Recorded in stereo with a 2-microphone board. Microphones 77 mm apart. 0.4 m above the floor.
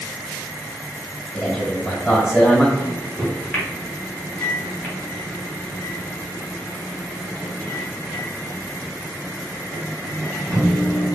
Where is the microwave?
15° left (ahead or behind), 1.4 m.